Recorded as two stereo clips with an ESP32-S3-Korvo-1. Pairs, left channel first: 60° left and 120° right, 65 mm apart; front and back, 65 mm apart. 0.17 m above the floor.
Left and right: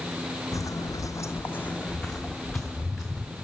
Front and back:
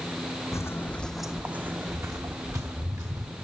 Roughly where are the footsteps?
Ahead left.